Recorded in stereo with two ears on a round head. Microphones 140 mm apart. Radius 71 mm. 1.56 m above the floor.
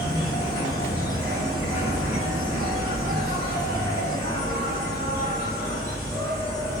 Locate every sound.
0.0 s an insect: 25° left (ahead or behind), 1.3 m